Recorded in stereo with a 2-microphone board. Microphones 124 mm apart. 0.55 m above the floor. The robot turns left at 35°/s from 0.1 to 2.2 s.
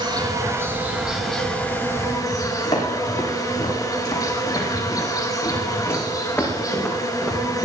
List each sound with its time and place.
0.0 s an insect: 140° right, 4 m; by 7.7 s 145° left, 4 m
2.6 s footsteps: 40° left (ahead or behind), 9 m; by 7.7 s centre (ahead or behind), 4.5 m